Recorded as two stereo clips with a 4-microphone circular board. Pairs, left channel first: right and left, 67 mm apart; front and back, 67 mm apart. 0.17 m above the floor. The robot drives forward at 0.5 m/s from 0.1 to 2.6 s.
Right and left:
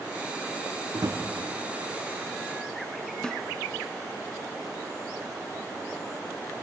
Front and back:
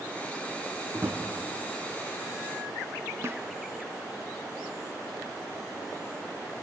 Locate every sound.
0.9 s a drawer: 125° left, 3.5 m; by 1.2 s 130° left, 3.5 m
3.2 s a snare drum: 160° right, 1.2 m